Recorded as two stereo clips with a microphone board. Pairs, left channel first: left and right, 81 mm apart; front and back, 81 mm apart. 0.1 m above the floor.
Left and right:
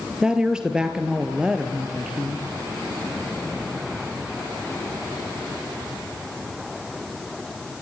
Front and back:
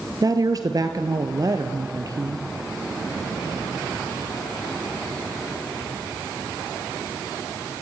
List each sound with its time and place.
0.2 s a woman speaking: 170° right, 1.6 m